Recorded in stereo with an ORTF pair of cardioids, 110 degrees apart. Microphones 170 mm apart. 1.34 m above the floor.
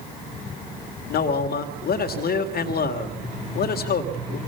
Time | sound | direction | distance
1.1 | a man speaking | 65° left | 2 m